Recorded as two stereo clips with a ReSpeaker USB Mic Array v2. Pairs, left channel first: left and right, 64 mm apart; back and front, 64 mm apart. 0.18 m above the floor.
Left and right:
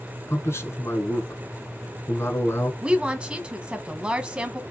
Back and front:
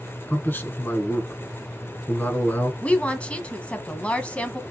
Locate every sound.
0.3 s a man speaking: 125° left, 1.8 m
2.8 s a woman speaking: 140° right, 1.2 m